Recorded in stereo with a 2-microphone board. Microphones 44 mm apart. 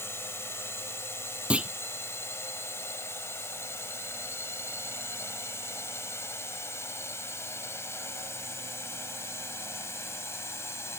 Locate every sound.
0.0 s a drone: 65° left (ahead or behind); by 11.0 s 75° left (ahead or behind)
1.5 s a clunk: 25° right (ahead or behind)